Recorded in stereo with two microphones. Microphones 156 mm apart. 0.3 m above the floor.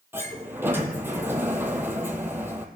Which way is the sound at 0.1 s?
15° right (ahead or behind).